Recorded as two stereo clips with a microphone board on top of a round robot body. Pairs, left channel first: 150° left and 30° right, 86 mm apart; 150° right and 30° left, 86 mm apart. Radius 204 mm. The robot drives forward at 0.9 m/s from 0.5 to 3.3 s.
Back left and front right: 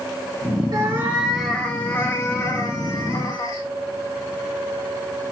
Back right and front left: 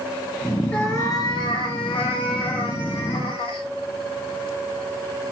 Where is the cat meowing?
75° right, 1.0 m; by 3.6 s 160° right, 2.5 m.